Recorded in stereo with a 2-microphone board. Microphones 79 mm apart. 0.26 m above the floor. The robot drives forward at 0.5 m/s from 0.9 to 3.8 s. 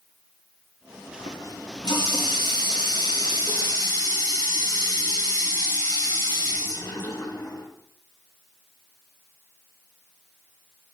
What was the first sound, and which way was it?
A running tap, 70° left (ahead or behind).